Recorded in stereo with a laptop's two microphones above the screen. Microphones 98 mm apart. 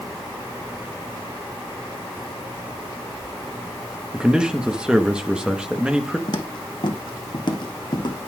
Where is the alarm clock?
I don't hear an alarm clock.